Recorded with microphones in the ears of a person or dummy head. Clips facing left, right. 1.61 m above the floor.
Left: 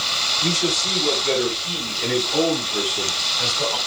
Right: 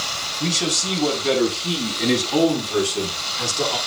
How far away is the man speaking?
About 4.5 m.